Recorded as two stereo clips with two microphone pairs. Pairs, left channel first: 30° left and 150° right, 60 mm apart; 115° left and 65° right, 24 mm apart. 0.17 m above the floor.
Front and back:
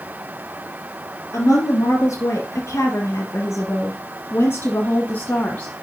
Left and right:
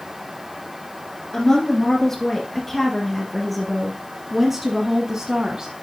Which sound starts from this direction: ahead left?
A woman speaking, at 1.3 s.